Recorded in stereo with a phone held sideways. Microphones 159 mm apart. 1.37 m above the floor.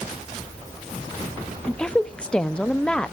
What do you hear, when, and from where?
1.7 s a woman speaking: 5° left (ahead or behind), 0.5 m